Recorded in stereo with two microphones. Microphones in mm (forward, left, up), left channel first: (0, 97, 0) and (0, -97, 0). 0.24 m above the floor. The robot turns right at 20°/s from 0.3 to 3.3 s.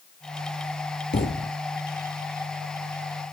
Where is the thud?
60° left (ahead or behind), 1.9 m; by 1.6 s 50° left (ahead or behind), 1.9 m.